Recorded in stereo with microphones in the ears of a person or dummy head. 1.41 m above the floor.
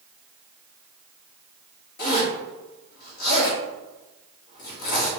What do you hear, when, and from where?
2.0 s a zipper: 50° left (ahead or behind), 1.4 m